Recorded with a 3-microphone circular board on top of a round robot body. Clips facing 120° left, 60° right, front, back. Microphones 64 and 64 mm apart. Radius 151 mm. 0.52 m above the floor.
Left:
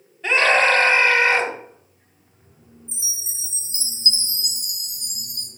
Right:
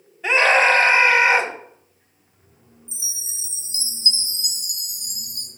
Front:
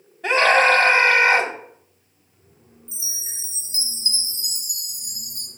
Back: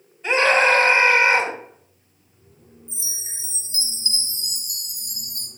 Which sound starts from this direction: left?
A chime, at 2.9 s.